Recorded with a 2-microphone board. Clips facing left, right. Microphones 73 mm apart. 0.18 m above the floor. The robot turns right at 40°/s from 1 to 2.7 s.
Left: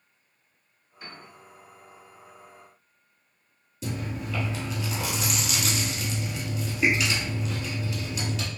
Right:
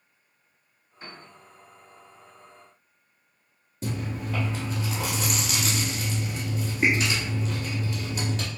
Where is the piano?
35° right (ahead or behind), 1.9 m.